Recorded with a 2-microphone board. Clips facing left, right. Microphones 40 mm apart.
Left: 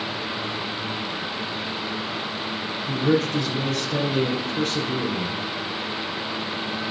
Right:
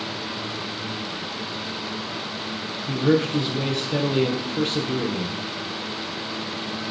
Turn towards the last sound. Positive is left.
turn(degrees=-30)  # may be behind; listen again after turning